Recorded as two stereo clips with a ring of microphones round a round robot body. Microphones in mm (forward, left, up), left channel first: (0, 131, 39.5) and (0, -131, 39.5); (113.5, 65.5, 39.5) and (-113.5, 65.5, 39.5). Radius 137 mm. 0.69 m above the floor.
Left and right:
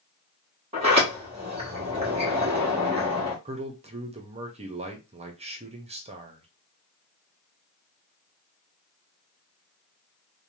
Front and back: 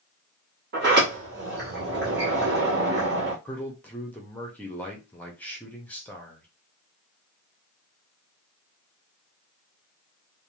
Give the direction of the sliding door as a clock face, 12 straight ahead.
5 o'clock.